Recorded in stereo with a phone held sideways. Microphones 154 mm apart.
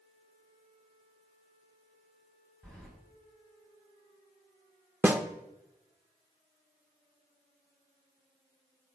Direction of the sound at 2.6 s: 5° left (ahead or behind).